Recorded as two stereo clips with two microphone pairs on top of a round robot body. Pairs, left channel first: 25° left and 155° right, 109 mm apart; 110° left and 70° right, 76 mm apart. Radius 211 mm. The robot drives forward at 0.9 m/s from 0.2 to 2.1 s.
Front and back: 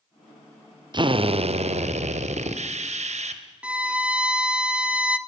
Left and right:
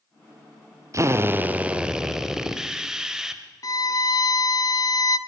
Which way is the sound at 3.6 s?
130° left.